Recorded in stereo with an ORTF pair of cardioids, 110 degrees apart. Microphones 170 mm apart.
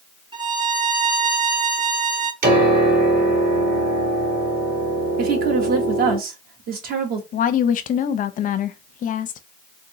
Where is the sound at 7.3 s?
55° left, 0.7 m.